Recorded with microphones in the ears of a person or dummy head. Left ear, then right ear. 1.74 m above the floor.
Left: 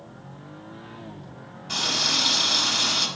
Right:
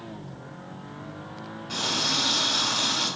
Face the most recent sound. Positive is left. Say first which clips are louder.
# left 3 dB
turn(degrees=25)  # may be behind; listen again after turning